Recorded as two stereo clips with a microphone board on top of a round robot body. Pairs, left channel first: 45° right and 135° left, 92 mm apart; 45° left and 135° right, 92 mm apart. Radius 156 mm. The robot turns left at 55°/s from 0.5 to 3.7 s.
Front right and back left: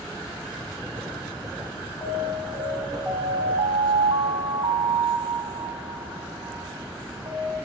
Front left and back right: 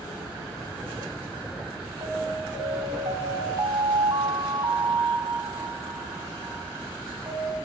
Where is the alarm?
90° right, 6 m; by 7.6 s 175° left, 6 m.